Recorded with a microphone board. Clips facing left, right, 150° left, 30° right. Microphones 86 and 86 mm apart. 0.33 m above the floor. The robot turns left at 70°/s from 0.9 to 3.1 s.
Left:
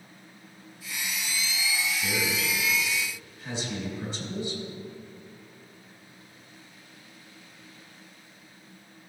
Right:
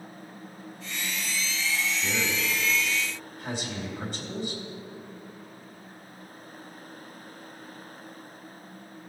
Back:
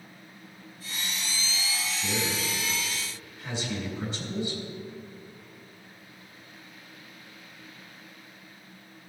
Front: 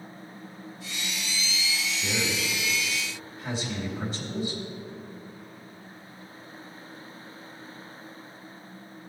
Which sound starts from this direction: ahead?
A man speaking, at 1.9 s.